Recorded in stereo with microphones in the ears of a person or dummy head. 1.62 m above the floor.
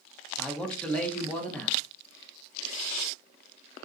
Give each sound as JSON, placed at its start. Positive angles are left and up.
{"t": 0.4, "sound": "a man speaking", "side_deg": 5, "distance_m": 0.6}